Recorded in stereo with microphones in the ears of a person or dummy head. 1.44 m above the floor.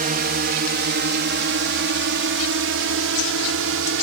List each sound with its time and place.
0.0 s a drone: 40° right (ahead or behind); by 4.0 s 65° right (ahead or behind)